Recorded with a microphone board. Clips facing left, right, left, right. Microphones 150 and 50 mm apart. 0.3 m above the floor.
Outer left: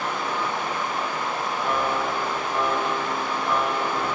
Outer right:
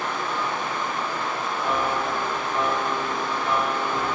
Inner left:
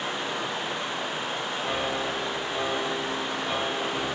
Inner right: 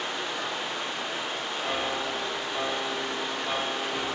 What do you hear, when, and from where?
0.0 s running water: 15° left (ahead or behind), 8.5 m
1.6 s a piano: 5° right (ahead or behind), 1.0 m